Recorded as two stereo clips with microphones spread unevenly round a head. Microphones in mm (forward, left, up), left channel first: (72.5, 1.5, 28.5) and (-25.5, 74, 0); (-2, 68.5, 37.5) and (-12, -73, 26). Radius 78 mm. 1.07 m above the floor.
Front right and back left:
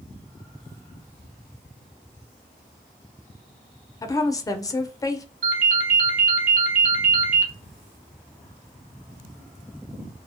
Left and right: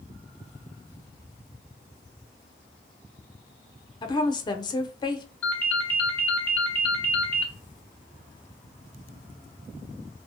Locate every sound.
4.0 s a woman speaking: 30° left, 0.5 m
5.4 s a ringtone: 160° left, 0.8 m